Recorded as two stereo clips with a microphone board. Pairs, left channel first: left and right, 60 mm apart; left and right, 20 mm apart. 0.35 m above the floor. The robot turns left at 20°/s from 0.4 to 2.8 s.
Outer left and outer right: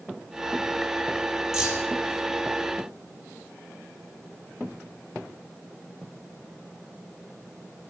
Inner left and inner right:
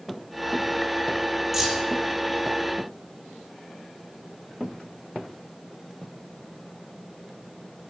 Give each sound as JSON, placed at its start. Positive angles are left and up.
{"t": 1.5, "sound": "keys jangling", "side_deg": -5, "distance_m": 7.0}